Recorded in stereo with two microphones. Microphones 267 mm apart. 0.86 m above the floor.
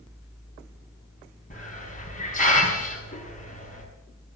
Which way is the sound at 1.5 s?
30° left (ahead or behind).